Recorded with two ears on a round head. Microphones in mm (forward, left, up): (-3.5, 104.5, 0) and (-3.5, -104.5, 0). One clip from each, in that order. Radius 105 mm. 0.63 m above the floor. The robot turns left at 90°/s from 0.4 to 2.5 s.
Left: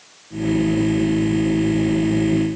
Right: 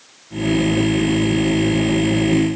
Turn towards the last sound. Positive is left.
No sound to turn to.